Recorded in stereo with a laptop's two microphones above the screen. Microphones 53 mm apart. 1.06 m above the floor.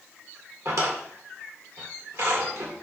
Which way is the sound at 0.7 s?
70° right (ahead or behind).